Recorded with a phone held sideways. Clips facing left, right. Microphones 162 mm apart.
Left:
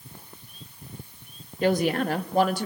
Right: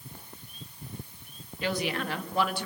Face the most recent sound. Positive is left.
turn(degrees=40)  # may be behind; listen again after turning